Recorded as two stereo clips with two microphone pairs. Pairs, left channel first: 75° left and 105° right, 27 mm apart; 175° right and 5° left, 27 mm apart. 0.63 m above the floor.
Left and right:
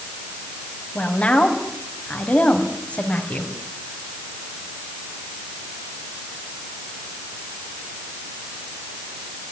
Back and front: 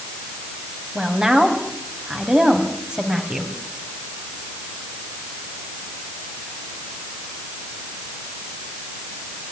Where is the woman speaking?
65° left, 4.5 m.